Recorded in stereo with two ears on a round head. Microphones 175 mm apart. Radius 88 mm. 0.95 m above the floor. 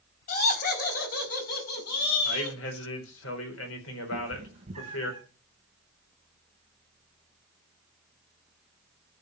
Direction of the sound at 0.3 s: 45° left (ahead or behind).